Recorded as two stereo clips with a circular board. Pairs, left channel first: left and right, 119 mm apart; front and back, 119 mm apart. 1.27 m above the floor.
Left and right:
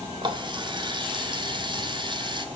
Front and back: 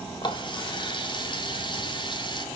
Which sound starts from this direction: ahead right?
A running tap, at 0.2 s.